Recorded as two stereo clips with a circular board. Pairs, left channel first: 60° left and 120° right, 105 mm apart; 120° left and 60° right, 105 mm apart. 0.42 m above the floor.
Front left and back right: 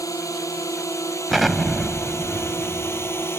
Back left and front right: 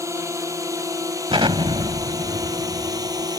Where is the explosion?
30° right.